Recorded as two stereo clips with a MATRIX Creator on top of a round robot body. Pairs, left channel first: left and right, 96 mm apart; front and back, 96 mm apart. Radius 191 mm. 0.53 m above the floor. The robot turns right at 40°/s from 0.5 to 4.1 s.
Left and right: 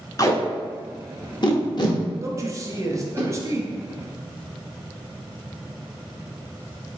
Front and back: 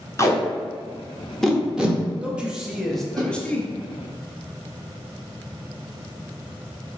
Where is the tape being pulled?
50° left, 1.0 m; by 3.2 s 155° left, 1.0 m.